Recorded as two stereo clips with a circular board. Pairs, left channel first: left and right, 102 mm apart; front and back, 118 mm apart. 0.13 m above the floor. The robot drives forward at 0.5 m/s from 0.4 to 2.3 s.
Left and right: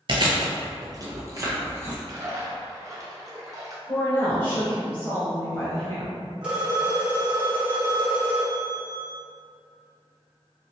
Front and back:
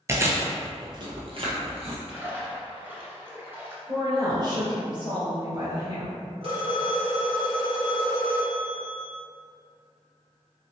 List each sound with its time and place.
0.1 s chewing: 115° right, 0.6 m; by 2.0 s 155° right, 1.2 m
2.1 s a splash: 105° right, 0.8 m; by 3.8 s 120° right, 0.8 m
3.9 s a woman speaking: 150° left, 1.5 m
6.4 s a phone ringing: 170° right, 1.2 m